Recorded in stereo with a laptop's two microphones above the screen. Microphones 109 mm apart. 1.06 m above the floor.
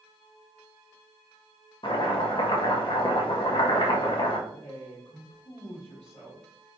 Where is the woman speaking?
70° left (ahead or behind), 1.4 m.